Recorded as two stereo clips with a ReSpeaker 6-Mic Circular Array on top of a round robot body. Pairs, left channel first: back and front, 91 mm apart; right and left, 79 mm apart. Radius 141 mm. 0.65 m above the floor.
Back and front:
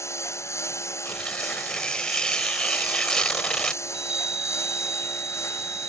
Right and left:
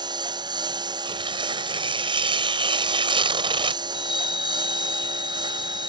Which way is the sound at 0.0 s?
120° left.